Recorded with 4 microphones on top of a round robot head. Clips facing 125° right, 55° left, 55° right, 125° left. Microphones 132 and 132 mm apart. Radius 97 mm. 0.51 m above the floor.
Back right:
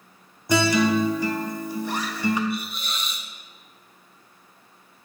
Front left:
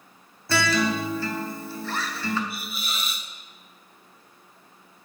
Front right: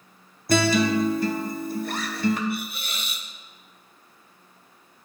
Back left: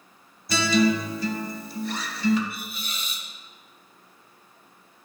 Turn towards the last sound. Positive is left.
turn(degrees=-30)